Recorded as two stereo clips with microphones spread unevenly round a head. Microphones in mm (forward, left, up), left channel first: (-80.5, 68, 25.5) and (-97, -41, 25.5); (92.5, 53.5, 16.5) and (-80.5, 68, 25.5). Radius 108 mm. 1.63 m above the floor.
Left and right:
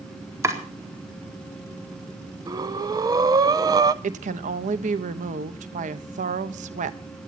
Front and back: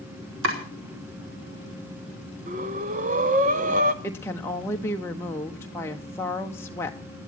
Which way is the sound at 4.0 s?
85° right.